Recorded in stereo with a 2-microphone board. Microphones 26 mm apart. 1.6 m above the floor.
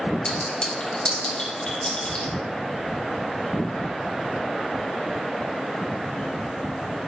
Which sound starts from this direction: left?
A clink, at 0.2 s.